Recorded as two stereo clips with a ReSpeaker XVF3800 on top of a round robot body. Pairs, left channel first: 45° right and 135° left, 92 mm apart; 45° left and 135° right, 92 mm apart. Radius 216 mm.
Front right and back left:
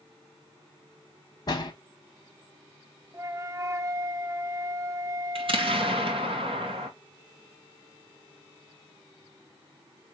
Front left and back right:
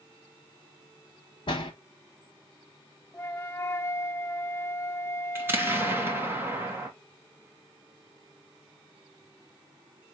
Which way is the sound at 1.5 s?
5° left.